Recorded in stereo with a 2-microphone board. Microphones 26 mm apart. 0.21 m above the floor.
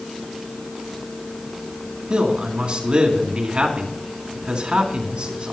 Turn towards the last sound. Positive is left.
turn(degrees=-50)  # may be behind; listen again after turning